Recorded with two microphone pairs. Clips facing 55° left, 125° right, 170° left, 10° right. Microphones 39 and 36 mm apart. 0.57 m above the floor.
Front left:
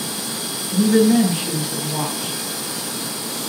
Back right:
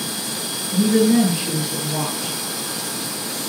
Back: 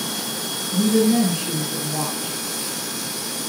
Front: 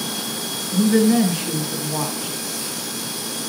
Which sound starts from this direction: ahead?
A woman speaking, at 0.7 s.